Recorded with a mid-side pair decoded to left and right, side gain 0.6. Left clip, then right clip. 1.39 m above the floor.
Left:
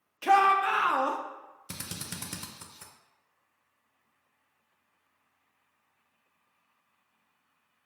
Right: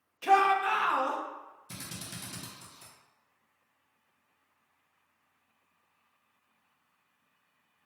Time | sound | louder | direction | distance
0.2 | a shout | left 2 dB | 20° left | 0.9 m
1.7 | a drill | left 3 dB | 60° left | 0.8 m